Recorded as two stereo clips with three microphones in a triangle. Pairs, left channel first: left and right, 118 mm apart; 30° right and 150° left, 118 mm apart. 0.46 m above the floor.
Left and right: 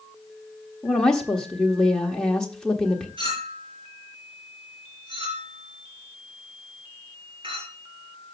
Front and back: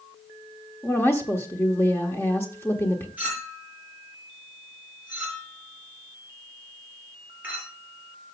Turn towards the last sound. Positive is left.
turn(degrees=-135)